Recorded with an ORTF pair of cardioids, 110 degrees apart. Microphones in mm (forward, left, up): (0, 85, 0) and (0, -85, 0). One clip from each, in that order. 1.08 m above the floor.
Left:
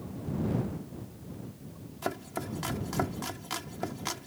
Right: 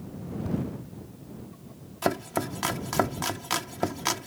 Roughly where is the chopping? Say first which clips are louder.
Right 7 dB; ahead right.